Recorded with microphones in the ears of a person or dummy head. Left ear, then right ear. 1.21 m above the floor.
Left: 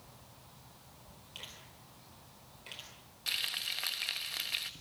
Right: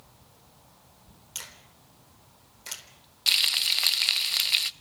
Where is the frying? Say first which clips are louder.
Right 12 dB; 35° right (ahead or behind), 0.9 m.